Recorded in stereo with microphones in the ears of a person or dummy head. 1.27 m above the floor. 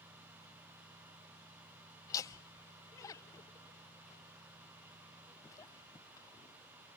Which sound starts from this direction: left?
Laughter, at 2.1 s.